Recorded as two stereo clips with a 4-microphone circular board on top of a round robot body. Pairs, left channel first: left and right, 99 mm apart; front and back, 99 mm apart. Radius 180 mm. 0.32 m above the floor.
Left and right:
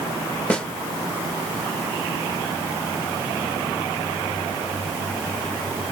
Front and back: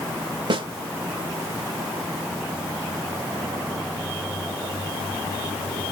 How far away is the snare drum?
About 1.4 m.